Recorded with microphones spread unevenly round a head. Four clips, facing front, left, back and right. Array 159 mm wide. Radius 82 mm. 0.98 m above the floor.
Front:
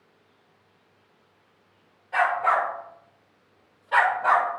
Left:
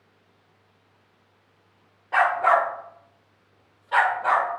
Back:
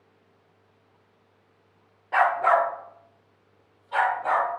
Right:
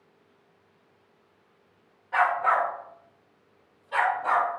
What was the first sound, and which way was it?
A dog barking, 135° left.